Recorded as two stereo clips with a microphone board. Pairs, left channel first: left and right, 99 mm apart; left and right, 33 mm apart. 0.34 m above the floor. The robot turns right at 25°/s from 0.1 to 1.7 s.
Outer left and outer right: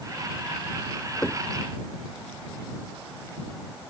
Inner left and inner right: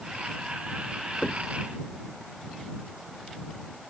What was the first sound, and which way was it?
Knocking, 25° left (ahead or behind).